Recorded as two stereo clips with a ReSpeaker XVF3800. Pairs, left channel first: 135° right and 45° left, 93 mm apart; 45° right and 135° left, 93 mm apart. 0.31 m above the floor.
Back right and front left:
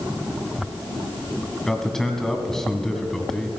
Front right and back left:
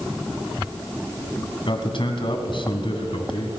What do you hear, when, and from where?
1.7 s a man speaking: 50° right, 2 m